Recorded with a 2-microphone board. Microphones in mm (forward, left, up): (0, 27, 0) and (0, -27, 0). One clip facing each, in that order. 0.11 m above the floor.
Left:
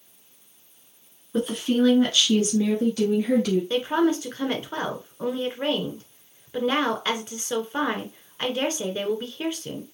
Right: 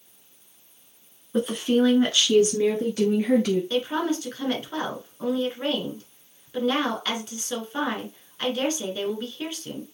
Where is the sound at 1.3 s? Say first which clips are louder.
Right 1 dB; 5° right (ahead or behind), 1.2 m; by 3.6 s 30° right (ahead or behind), 1.9 m.